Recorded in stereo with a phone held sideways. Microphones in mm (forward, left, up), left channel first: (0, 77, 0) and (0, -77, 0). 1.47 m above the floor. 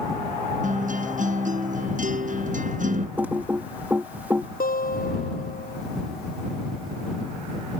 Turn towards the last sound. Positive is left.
turn(degrees=65)  # may be behind; listen again after turning